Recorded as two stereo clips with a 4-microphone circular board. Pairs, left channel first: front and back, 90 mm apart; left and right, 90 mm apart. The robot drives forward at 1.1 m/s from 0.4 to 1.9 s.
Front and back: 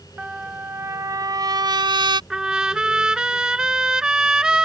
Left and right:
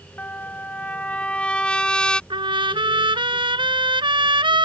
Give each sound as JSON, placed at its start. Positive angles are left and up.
{"t": 0.2, "sound": "a trumpet", "azimuth_deg": 125}
{"t": 2.3, "sound": "a trumpet", "azimuth_deg": -100}